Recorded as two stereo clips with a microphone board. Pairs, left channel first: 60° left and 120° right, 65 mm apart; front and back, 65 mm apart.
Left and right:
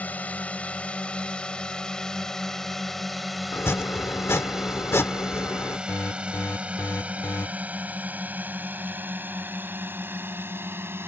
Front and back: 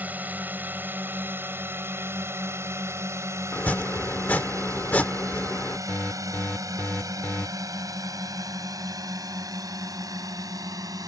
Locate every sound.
0.0 s a drone: 125° left; by 11.1 s 170° right
3.5 s chopping: 55° left
5.9 s an alarm: 55° left